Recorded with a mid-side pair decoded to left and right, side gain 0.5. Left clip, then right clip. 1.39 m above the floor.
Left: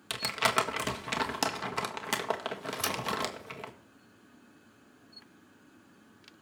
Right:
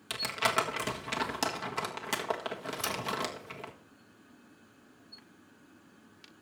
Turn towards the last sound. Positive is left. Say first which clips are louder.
# left 2 dB
turn(degrees=25)